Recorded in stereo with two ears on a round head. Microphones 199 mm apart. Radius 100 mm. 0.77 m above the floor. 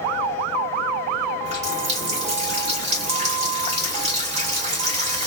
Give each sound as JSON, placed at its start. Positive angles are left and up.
{"t": 1.4, "sound": "a running tap", "side_deg": -30, "distance_m": 1.7}